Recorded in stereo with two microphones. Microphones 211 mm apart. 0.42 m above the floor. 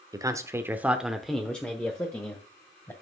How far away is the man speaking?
About 0.9 m.